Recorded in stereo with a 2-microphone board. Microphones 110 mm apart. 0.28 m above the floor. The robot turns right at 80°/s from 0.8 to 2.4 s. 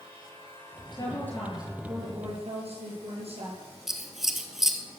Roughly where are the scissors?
Centre.